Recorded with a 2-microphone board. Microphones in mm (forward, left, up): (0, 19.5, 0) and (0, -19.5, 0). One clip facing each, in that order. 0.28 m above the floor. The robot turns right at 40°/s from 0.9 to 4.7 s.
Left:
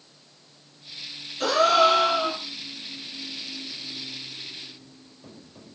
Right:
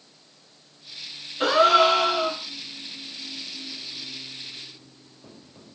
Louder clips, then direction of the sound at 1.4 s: Right 2 dB; 25° right.